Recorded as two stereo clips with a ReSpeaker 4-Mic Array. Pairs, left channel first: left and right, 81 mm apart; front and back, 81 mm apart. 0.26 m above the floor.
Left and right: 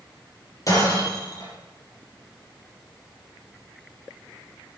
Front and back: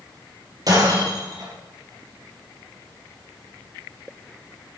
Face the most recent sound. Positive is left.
turn(degrees=135)